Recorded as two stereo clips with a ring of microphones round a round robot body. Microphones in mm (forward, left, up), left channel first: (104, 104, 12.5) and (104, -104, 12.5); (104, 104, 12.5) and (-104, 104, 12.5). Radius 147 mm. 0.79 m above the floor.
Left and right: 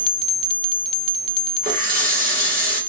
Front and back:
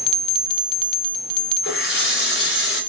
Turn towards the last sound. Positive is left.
turn(degrees=-40)